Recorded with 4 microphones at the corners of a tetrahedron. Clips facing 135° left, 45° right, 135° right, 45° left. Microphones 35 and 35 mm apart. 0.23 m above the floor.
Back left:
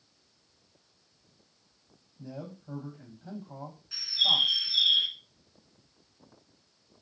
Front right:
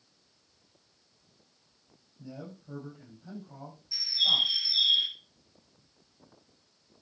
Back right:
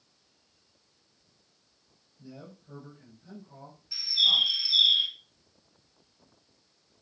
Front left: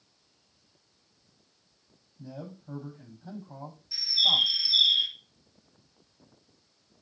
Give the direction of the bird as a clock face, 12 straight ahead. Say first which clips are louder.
Back left 1 dB, even; 7 o'clock.